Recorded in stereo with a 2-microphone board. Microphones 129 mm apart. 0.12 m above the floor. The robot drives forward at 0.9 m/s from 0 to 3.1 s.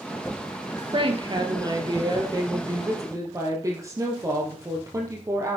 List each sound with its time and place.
0.9 s a woman speaking: 40° right (ahead or behind), 2.5 m; by 5.6 s 25° right (ahead or behind), 4 m